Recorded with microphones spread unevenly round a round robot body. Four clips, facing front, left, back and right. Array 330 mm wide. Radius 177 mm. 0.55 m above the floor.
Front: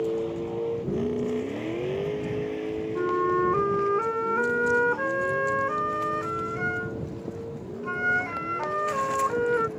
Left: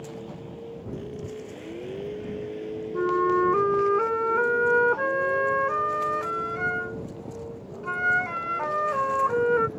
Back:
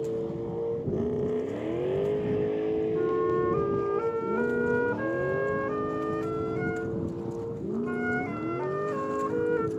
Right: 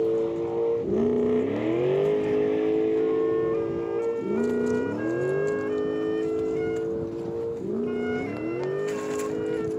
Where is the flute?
50° left.